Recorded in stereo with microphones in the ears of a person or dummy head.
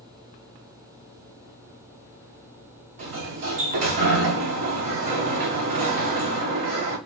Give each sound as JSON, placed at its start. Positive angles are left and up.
{"t": 3.0, "sound": "a sliding door", "side_deg": -50, "distance_m": 0.8}